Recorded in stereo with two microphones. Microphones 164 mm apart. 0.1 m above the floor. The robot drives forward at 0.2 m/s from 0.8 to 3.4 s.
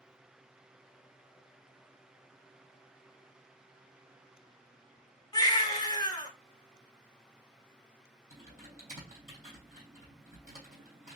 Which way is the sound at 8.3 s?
50° right (ahead or behind).